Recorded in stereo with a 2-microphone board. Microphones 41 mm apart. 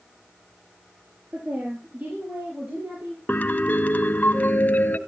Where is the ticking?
No ticking in this recording.